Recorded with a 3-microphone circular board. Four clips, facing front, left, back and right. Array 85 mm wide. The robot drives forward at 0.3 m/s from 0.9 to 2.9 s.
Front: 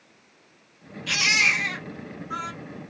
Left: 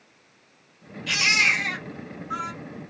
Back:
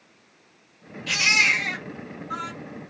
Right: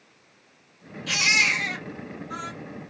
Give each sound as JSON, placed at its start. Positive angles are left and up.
{"t": 1.1, "sound": "a baby crying", "azimuth_deg": 150, "distance_m": 2.5}